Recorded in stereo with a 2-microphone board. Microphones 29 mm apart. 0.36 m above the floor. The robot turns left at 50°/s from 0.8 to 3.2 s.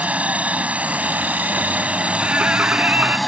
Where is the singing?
45° right; by 3.2 s 95° right.